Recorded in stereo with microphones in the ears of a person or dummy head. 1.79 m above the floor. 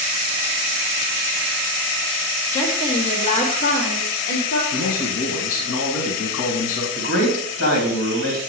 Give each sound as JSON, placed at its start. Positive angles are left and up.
{"t": 2.5, "sound": "a woman speaking", "side_deg": 15, "distance_m": 1.9}
{"t": 4.7, "sound": "a man speaking", "side_deg": 75, "distance_m": 2.0}
{"t": 7.0, "sound": "a man speaking", "side_deg": 75, "distance_m": 3.0}